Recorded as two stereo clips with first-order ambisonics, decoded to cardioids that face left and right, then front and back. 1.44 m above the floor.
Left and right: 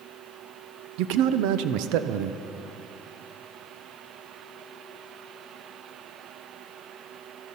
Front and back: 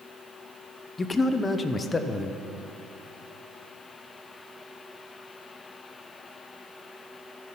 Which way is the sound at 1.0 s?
75° right.